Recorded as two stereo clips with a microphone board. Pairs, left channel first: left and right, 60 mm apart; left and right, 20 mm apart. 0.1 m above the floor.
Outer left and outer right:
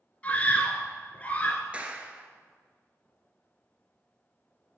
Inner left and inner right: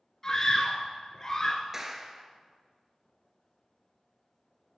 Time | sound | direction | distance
0.2 | a scream | 25° left (ahead or behind) | 1.4 m
1.7 | a clap | 20° right (ahead or behind) | 1.5 m